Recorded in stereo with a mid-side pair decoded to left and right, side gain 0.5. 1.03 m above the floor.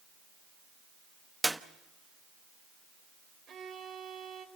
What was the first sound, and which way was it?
A clap, 10° right.